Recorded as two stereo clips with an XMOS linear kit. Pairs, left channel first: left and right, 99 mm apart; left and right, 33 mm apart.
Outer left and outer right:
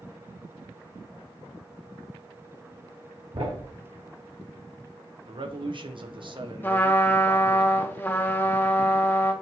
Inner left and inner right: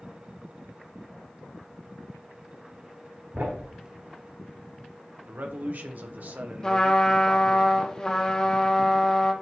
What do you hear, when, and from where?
3.3 s a thud: 65° right (ahead or behind), 2.5 m
5.3 s a man speaking: 55° right (ahead or behind), 1.0 m
6.6 s a trumpet: 20° left (ahead or behind), 1.0 m